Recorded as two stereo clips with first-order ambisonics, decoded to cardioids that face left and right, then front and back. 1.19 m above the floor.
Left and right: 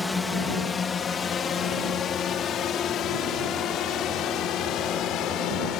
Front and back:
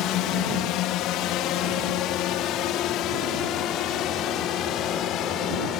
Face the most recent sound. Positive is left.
turn(degrees=45)